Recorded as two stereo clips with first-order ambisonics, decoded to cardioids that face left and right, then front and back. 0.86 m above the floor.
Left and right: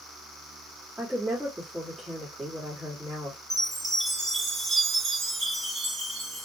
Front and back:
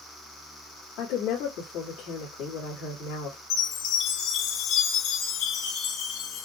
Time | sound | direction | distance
1.0 | a woman speaking | 5° right | 1.6 m
3.5 | a chime | 20° right | 1.3 m